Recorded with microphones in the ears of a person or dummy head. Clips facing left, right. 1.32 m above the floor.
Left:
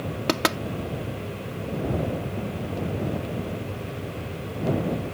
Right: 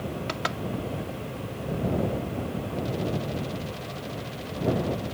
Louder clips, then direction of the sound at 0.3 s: Left 8 dB; 75° left (ahead or behind).